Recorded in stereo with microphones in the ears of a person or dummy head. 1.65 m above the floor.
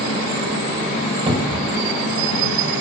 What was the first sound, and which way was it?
A cupboard door, 30° right (ahead or behind).